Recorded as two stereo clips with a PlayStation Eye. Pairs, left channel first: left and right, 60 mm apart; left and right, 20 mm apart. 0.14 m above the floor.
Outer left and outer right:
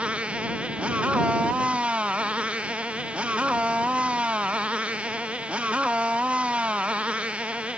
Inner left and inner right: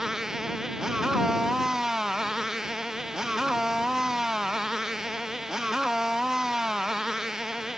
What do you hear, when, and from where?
0.0 s a motorcycle: 20° right (ahead or behind)